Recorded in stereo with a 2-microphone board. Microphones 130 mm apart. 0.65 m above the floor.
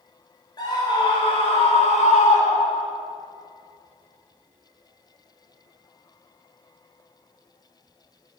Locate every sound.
0.6 s a scream: 35° left (ahead or behind), 3 m; by 2.9 s 65° left (ahead or behind), 2 m